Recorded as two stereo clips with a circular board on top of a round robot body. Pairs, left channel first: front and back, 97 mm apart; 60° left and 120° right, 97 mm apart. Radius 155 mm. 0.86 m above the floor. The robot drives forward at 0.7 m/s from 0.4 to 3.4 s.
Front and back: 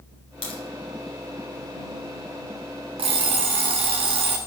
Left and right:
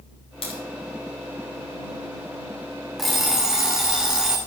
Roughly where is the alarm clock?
Behind left.